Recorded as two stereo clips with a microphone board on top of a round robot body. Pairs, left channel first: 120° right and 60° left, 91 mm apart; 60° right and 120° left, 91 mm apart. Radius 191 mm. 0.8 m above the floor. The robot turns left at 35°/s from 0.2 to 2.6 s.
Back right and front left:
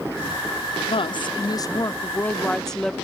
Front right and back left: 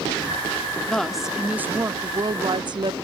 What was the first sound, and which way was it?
A woman speaking, 140° right.